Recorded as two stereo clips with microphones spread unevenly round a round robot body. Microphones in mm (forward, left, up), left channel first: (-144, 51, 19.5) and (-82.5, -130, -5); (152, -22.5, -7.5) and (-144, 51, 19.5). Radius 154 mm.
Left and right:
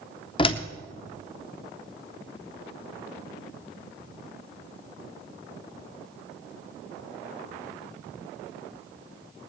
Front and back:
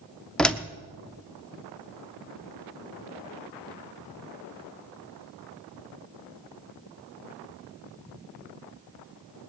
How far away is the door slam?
About 0.7 m.